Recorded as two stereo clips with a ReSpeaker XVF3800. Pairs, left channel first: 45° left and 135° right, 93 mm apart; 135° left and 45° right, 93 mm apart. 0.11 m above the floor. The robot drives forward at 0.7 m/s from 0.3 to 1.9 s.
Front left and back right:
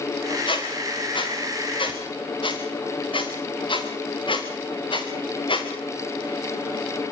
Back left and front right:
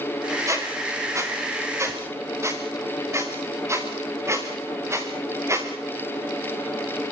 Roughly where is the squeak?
Ahead.